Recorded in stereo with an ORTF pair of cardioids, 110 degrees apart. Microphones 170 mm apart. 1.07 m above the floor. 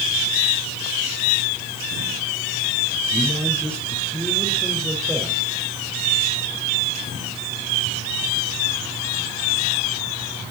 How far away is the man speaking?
About 5 m.